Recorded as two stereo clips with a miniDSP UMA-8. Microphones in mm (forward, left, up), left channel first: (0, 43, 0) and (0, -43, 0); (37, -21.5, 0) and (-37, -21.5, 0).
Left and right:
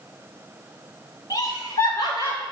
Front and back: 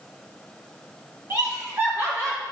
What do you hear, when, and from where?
1.3 s laughter: 130° left, 2.5 m; by 2.4 s 125° left, 4 m